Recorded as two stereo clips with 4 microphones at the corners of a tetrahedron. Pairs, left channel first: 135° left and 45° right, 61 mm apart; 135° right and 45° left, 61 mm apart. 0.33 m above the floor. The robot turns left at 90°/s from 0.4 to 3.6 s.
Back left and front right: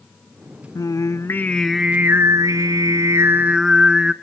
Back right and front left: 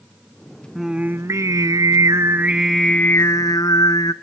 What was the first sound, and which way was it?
Singing, 130° left.